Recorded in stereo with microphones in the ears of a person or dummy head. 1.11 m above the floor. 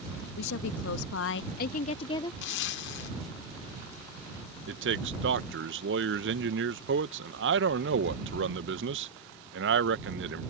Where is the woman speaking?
65° left (ahead or behind); by 2.3 s 25° left (ahead or behind).